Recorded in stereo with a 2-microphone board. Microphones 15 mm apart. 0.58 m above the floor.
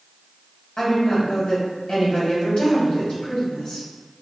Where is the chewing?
No chewing in this recording.